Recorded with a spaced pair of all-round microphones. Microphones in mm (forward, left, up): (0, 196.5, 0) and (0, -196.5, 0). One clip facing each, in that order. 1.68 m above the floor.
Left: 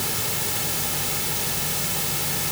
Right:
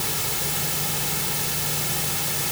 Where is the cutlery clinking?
No cutlery clinking in this recording.